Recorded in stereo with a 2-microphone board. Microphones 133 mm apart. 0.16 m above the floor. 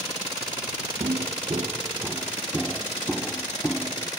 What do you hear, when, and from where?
1.0 s footsteps: 55° right (ahead or behind); by 4.1 s 15° left (ahead or behind)